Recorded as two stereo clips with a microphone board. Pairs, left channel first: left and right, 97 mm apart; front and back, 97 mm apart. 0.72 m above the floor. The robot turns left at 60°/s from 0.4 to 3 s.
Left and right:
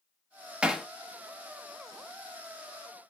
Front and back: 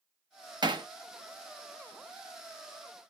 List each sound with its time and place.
0.6 s hammering: 165° right, 0.6 m; by 0.9 s straight behind, 0.6 m